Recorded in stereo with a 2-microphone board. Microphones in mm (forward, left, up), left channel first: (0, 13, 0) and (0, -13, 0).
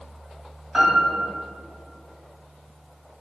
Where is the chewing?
I don't hear chewing.